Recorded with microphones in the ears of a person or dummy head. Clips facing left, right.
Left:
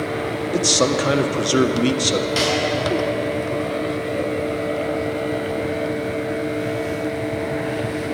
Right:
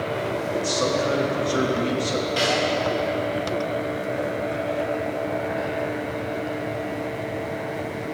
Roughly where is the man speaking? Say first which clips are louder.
Left 5 dB; left.